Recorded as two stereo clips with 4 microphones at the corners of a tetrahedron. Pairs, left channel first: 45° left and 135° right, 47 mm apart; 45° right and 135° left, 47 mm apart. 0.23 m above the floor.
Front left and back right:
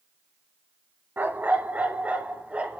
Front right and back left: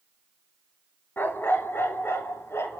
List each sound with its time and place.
1.2 s a dog barking: 85° right, 1.4 m; by 2.8 s 70° right, 2 m